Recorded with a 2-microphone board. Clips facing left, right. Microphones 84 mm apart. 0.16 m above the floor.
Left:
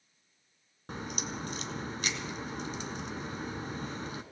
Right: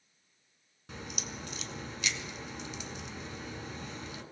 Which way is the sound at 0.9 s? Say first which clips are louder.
Left 5 dB; 45° left (ahead or behind).